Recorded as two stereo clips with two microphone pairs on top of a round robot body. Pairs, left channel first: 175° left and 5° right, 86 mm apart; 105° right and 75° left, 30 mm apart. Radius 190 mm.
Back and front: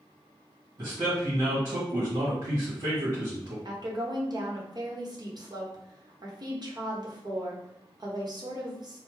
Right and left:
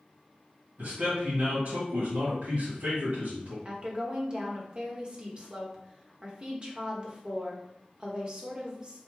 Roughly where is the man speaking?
Ahead left.